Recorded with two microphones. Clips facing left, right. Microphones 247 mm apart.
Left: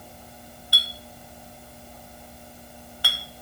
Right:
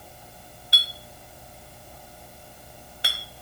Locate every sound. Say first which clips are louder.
0.7 s a clink: left 2 dB; 20° right (ahead or behind), 1.0 m